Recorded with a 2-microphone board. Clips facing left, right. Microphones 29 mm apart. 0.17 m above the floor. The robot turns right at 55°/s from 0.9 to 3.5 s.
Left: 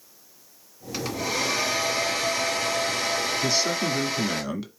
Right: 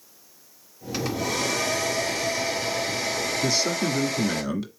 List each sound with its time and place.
0.9 s a hair dryer: straight ahead, 2.5 m; by 4.4 s 140° left, 2.5 m
3.4 s a man speaking: 5° left (ahead or behind), 1.5 m